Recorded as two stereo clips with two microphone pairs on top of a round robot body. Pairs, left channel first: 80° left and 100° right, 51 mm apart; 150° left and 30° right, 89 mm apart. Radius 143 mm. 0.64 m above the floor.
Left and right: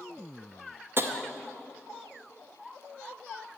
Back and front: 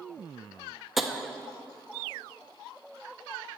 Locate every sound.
1.0 s tapping: 115° right, 0.9 m